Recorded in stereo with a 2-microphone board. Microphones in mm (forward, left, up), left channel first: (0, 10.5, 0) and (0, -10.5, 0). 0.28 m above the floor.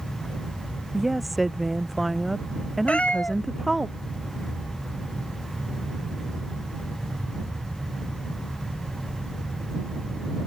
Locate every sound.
0.9 s a woman speaking: centre (ahead or behind)
2.9 s a cat meowing: 80° left